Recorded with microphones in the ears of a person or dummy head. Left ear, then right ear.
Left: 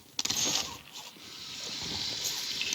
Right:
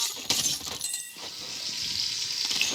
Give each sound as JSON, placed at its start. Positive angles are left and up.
{"t": 1.2, "sound": "frying", "side_deg": -35, "distance_m": 7.5}